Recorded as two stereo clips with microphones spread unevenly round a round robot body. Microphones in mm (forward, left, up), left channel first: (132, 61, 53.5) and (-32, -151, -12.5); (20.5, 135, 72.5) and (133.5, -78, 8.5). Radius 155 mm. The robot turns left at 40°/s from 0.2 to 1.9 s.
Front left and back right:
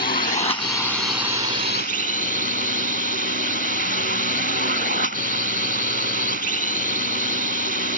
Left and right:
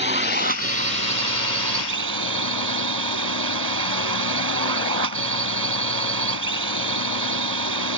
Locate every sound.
0.0 s a drone: 10° right; by 8.0 s 75° right